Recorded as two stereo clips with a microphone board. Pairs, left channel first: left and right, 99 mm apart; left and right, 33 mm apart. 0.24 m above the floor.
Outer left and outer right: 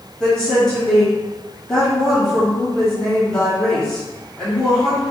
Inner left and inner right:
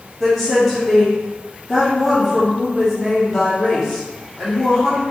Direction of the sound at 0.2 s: 5° left (ahead or behind).